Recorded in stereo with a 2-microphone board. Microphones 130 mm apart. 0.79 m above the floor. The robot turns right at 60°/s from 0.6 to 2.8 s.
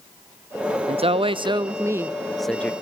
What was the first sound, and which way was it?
A woman speaking, 90° right.